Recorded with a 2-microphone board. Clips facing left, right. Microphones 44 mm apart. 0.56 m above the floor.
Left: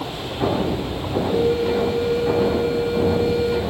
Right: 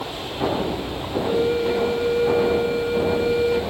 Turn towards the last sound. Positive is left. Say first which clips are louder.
# left 1 dB
turn(degrees=-25)  # may be behind; listen again after turning